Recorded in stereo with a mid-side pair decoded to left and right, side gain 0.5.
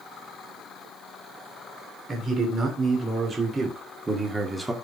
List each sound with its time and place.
2.1 s a man speaking: 45° right, 4 m; by 4.7 s 20° right, 2.5 m